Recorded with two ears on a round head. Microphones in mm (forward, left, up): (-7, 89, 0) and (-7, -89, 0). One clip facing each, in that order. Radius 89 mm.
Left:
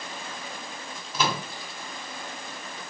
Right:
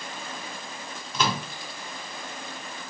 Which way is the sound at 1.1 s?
5° left (ahead or behind).